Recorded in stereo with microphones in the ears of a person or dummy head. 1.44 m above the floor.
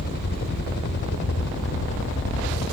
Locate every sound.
0.0 s a helicopter: 50° left (ahead or behind); by 2.7 s 70° left (ahead or behind)